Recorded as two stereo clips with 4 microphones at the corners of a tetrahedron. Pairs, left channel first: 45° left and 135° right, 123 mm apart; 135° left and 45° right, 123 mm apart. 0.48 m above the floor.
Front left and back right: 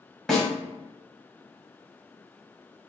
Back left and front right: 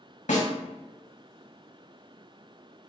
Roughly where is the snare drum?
Behind left.